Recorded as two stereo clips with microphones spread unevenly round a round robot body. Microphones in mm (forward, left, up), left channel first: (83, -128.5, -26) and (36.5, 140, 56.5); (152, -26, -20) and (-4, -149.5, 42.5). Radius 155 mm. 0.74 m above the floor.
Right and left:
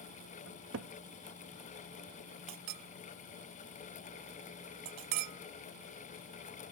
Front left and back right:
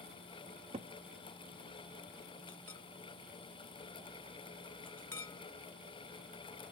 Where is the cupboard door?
145° left.